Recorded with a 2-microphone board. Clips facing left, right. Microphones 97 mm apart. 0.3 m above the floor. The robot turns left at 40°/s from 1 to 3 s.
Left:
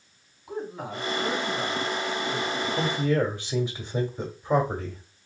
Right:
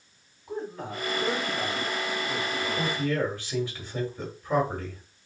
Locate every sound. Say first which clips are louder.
0.5 s a man speaking: left 1 dB; 10° left (ahead or behind), 3 m; by 3.1 s 55° right (ahead or behind), 3 m
2.8 s a man speaking: left 4 dB; 25° left (ahead or behind), 1.6 m; by 5.0 s 20° left (ahead or behind), 1.6 m